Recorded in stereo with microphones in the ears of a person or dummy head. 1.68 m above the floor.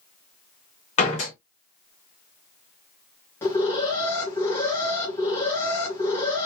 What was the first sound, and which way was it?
A door slam, 35° left (ahead or behind).